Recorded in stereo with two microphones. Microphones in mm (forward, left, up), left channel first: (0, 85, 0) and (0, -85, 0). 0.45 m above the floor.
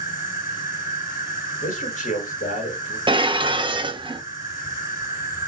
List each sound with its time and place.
0.0 s an insect: 15° right (ahead or behind), 1.8 m
1.6 s a man speaking: 50° left (ahead or behind), 2 m
3.1 s dishes clattering: 30° right (ahead or behind), 0.5 m